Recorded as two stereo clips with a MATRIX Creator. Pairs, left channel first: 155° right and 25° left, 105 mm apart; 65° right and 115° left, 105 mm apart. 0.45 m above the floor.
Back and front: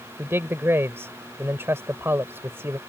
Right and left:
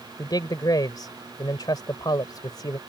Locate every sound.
0.2 s a man speaking: 35° right